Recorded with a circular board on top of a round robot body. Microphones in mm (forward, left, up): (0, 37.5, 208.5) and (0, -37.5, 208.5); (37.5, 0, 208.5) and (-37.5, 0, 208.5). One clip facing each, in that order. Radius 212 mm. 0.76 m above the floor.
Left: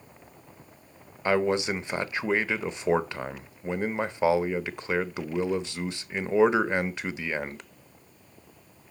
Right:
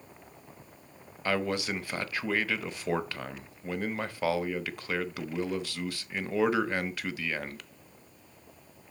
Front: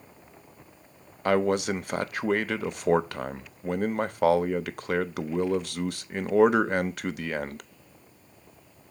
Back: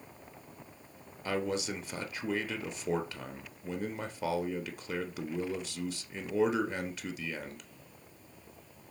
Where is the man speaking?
20° left, 0.7 m.